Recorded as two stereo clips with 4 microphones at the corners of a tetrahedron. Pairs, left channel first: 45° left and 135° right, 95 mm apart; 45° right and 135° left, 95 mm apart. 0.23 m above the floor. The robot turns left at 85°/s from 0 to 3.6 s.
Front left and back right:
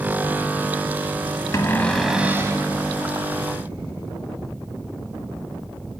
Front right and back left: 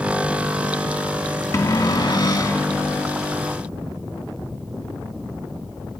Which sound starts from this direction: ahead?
A cupboard door, at 1.5 s.